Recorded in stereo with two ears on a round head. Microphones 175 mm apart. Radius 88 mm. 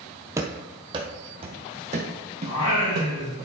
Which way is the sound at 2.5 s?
85° left.